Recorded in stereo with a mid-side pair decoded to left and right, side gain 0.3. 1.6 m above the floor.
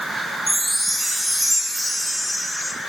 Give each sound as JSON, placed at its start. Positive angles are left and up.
{"t": 0.5, "sound": "a chime", "azimuth_deg": -20, "distance_m": 1.9}